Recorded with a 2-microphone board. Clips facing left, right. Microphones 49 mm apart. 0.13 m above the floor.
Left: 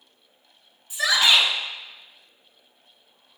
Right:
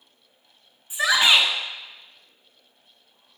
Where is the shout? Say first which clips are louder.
Right 1 dB; 25° right (ahead or behind), 1.1 m.